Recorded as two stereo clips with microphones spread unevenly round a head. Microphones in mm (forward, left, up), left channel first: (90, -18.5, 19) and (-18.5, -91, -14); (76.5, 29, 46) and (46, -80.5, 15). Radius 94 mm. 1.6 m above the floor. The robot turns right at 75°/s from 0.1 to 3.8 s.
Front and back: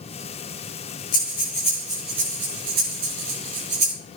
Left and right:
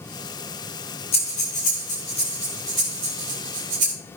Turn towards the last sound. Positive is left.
turn(degrees=-110)